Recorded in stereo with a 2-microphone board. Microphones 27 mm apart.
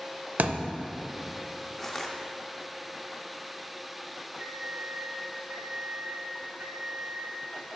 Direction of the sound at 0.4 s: 75° right (ahead or behind).